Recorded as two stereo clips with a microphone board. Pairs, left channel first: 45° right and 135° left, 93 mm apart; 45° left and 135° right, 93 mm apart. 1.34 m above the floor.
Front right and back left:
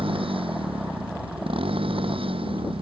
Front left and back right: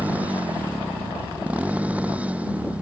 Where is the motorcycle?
150° left.